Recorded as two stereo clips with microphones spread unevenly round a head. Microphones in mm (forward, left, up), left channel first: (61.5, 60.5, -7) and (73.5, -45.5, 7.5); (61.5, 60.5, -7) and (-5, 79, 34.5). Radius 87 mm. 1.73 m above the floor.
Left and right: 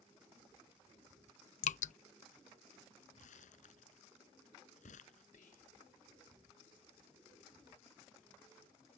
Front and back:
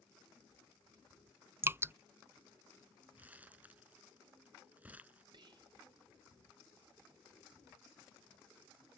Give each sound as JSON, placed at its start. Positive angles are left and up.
{"t": 1.6, "sound": "dripping", "azimuth_deg": 120}
{"t": 3.2, "sound": "crumpling", "azimuth_deg": 105}
{"t": 5.3, "sound": "whispering", "azimuth_deg": 150}